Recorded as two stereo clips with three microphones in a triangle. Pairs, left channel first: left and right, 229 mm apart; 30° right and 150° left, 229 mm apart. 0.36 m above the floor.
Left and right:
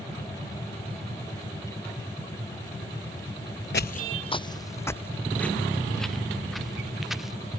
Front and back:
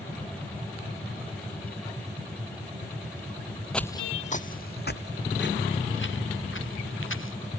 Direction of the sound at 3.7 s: 55° left.